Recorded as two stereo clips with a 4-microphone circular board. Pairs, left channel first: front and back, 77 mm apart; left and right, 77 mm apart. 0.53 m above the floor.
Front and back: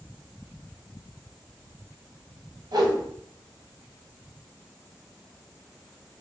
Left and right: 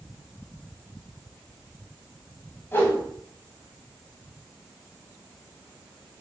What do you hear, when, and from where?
2.7 s a whoosh: 155° left, 1.2 m